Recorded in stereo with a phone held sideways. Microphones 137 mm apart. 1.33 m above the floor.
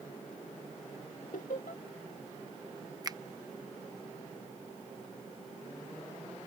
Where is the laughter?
75° left (ahead or behind).